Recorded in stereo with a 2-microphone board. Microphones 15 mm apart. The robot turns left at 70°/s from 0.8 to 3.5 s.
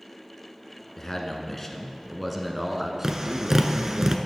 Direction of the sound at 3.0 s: 45° right (ahead or behind).